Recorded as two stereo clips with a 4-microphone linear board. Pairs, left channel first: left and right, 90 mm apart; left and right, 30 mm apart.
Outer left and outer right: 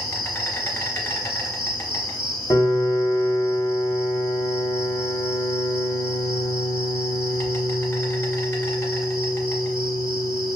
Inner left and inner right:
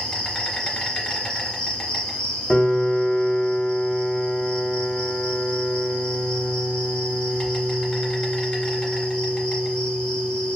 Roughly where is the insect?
Left.